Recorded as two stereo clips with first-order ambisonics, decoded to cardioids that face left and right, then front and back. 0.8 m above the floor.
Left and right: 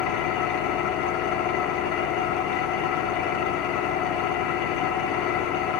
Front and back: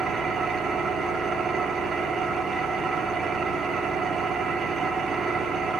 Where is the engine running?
105° left, 1.2 m.